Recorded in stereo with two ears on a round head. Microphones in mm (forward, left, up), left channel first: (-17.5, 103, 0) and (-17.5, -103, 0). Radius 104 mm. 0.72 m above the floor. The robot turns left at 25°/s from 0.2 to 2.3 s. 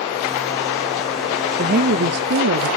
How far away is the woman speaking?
About 1.1 m.